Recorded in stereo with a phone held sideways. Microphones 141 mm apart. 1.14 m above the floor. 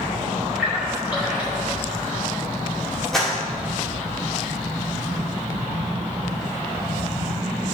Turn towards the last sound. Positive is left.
turn(degrees=5)  # may be behind; listen again after turning